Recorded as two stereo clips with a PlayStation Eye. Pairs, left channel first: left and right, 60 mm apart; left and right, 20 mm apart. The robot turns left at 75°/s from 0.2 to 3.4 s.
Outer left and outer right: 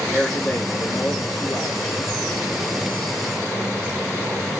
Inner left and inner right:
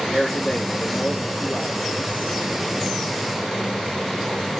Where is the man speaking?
175° right, 2 m; by 1.9 s 55° left, 2 m.